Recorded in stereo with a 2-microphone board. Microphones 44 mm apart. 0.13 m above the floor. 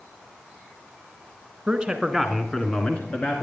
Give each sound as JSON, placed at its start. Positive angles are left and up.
{"t": 1.7, "sound": "a man speaking", "side_deg": -25, "distance_m": 1.2}